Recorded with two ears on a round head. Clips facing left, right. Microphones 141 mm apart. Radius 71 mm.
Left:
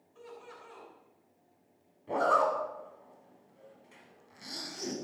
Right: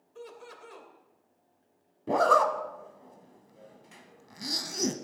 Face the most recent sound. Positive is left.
turn(degrees=-75)  # may be behind; listen again after turning